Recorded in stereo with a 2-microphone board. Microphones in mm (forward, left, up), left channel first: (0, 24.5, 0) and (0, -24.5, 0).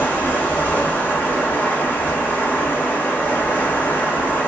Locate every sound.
0.0 s running water: 40° left (ahead or behind), 0.8 m